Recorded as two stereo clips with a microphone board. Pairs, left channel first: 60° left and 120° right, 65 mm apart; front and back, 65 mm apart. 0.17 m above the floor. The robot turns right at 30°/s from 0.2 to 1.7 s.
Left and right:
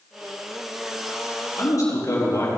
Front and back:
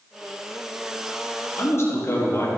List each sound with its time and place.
1.6 s a man speaking: 35° left, 5 m; by 2.5 s 40° left, 5 m